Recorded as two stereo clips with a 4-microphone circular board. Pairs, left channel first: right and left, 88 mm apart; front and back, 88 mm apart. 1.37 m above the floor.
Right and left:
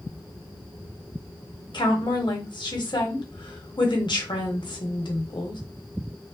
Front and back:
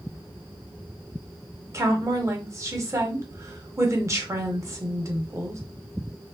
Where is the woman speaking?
120° right, 0.8 m.